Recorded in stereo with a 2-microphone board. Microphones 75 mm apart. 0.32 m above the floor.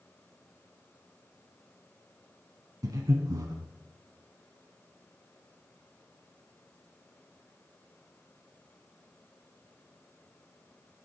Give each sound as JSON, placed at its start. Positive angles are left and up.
{"t": 2.8, "sound": "breathing", "side_deg": -55, "distance_m": 0.8}